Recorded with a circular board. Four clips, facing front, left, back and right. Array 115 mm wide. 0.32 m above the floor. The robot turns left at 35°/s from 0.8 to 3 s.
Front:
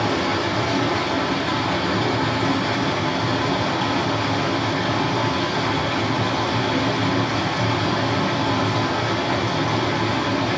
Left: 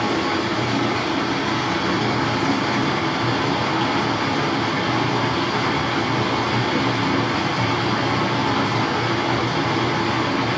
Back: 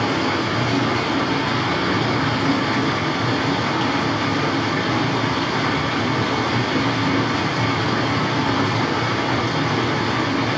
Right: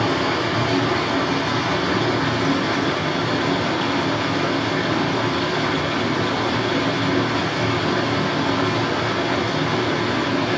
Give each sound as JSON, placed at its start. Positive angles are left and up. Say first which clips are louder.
{"t": 0.0, "sound": "running water", "louder": "right 1 dB, back 1 dB", "azimuth_deg": -145, "distance_m": 1.5}